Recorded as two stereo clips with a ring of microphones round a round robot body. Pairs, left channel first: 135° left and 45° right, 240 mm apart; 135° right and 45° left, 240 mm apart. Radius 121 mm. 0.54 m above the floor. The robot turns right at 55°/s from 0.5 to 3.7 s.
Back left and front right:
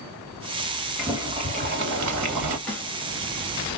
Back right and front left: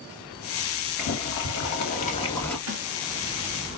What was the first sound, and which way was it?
Boiling, 130° right.